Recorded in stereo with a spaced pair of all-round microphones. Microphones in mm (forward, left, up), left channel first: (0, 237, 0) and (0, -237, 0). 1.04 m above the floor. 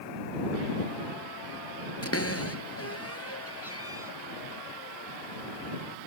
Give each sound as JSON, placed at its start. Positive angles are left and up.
{"t": 2.0, "sound": "a cupboard door", "side_deg": 30}